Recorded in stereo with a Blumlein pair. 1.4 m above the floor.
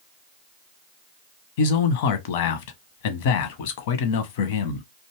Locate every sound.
1.6 s a man speaking: 50° left, 0.7 m